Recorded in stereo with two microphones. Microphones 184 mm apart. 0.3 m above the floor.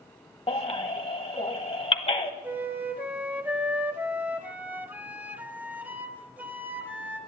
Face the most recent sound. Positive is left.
turn(degrees=-10)  # may be behind; listen again after turning